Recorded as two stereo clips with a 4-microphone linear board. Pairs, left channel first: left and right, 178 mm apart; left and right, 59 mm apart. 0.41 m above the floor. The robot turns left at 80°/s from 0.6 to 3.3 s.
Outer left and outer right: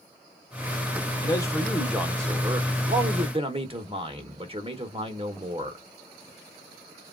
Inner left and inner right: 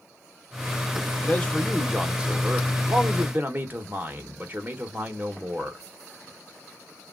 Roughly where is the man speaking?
Ahead left.